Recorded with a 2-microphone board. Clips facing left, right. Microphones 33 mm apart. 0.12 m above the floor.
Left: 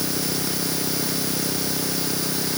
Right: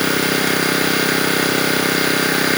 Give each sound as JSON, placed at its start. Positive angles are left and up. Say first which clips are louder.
{"t": 0.0, "sound": "an engine running", "louder": "right 10 dB", "side_deg": -60}